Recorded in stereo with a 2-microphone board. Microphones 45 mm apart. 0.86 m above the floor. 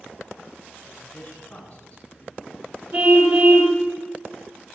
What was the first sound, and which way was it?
A man speaking, 25° left (ahead or behind).